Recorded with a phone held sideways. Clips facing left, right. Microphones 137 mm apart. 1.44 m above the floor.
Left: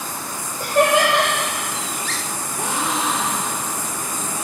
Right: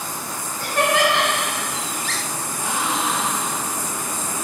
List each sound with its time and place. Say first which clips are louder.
0.6 s laughter: left 3 dB; 45° left (ahead or behind), 3.5 m
2.6 s a gasp: left 1 dB; 80° left, 3.5 m